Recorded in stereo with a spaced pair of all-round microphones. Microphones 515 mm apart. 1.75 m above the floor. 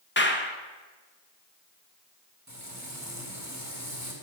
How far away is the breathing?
I don't hear breathing.